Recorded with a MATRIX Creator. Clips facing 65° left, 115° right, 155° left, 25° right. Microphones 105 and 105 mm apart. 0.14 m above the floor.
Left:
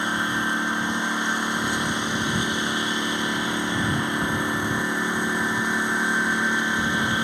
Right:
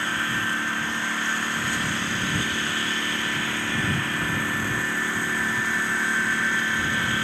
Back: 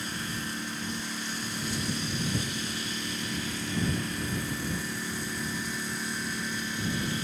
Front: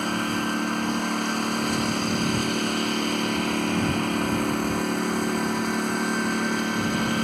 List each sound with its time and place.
0.0 s a lawn mower: 5° right